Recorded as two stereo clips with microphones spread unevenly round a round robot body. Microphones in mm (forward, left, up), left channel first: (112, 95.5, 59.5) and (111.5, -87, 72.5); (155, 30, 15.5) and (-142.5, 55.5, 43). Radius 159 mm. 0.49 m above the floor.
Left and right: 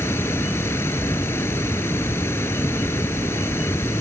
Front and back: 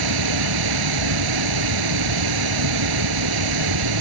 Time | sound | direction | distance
0.0 | running water | 170° left | ?